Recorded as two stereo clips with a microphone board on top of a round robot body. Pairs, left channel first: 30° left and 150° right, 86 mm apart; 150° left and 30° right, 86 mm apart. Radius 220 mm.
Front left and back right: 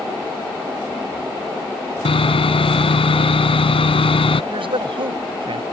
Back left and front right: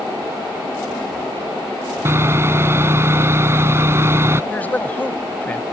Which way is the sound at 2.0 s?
30° left.